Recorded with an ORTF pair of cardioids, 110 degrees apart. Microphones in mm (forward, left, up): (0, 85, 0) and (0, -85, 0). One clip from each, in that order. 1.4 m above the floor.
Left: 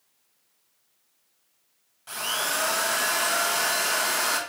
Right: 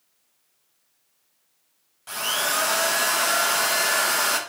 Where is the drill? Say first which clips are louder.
Right 3 dB; 15° right, 1.1 m.